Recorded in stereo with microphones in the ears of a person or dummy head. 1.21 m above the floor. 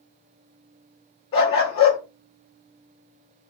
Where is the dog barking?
20° left (ahead or behind), 0.6 m.